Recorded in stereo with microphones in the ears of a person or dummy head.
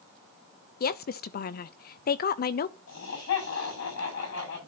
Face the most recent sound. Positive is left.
turn(degrees=65)  # may be behind; listen again after turning